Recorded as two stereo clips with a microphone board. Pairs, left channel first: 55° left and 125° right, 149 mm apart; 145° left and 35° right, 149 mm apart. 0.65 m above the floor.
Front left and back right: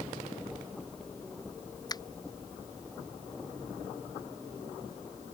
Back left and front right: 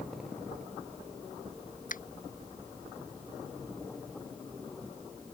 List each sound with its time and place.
1.9 s a finger snap: 120° left